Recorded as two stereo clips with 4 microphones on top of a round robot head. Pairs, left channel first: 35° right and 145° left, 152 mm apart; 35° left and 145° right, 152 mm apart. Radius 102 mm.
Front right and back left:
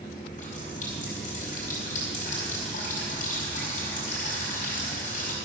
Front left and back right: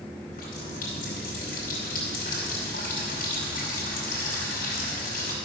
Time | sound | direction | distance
0.3 | a running tap | 5° left | 4.5 m